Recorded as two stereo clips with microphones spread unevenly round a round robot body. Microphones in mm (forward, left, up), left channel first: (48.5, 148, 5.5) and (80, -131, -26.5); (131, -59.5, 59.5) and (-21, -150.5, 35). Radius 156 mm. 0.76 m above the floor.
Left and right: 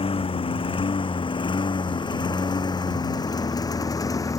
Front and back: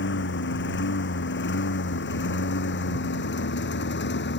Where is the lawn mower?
25° left; by 4.4 s 20° left.